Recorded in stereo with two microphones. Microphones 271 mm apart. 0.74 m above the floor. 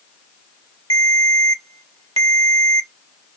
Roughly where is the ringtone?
Right.